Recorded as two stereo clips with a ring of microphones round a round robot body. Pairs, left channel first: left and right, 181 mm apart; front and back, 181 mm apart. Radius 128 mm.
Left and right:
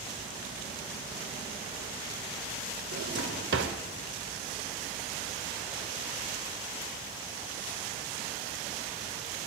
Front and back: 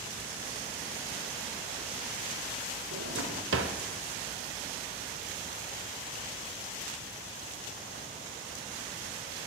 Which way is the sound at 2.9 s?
135° right.